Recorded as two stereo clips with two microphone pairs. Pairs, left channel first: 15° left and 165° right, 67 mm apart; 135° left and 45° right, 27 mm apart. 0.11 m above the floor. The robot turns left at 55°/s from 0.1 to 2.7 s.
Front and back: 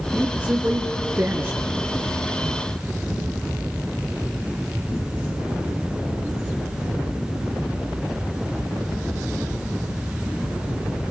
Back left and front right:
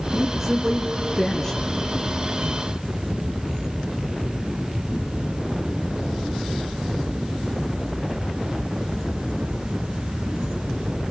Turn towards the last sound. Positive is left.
turn(degrees=120)